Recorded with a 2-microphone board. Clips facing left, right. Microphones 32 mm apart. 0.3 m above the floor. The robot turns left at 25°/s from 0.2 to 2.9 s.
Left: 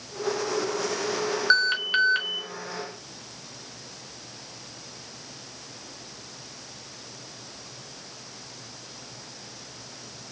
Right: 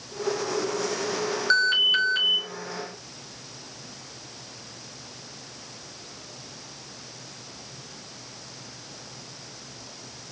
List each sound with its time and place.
1.5 s an alarm: 10° left (ahead or behind), 0.9 m; by 2.4 s 25° left (ahead or behind), 0.9 m